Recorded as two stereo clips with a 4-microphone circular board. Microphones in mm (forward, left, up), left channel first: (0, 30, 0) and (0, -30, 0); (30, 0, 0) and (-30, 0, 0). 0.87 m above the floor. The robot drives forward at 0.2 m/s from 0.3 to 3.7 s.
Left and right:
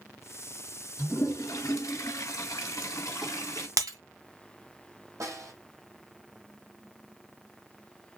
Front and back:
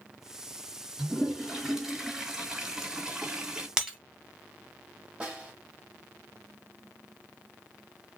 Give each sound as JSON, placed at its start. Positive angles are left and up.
{"t": 1.0, "sound": "a toilet flushing", "azimuth_deg": 95, "distance_m": 2.5}
{"t": 3.8, "sound": "breaking glass", "azimuth_deg": -100, "distance_m": 1.8}
{"t": 5.2, "sound": "a snare drum", "azimuth_deg": -115, "distance_m": 2.5}